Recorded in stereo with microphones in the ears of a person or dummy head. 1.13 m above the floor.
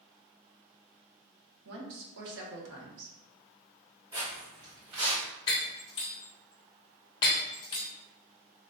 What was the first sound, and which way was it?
A woman speaking, 60° right (ahead or behind).